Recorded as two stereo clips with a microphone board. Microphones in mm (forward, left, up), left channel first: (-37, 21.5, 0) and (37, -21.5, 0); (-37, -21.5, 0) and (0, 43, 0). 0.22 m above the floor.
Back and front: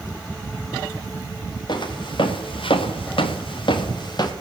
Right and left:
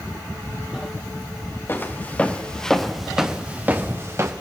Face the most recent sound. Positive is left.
turn(degrees=110)